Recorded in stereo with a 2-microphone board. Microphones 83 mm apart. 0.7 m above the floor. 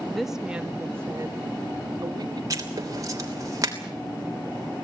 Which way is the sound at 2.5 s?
40° right (ahead or behind).